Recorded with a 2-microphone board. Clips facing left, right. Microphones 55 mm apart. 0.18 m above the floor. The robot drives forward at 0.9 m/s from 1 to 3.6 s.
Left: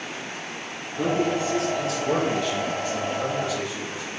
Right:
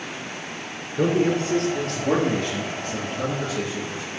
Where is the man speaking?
60° right (ahead or behind), 2.5 m; by 4.0 s 40° right (ahead or behind), 3.5 m.